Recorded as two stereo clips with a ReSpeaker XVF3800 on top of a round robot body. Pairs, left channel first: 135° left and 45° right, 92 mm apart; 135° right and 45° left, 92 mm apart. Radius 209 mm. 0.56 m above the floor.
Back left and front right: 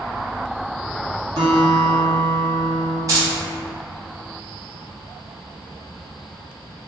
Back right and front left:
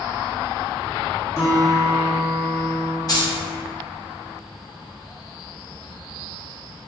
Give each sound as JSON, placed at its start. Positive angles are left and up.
{"t": 1.4, "sound": "a guitar", "azimuth_deg": -75, "distance_m": 1.5}
{"t": 3.1, "sound": "keys jangling", "azimuth_deg": -90, "distance_m": 1.3}